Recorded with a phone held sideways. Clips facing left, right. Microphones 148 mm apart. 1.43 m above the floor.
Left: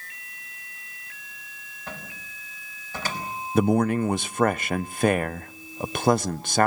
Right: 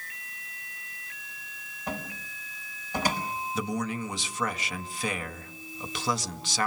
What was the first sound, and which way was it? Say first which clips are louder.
A cupboard door: right 5 dB; 15° right (ahead or behind).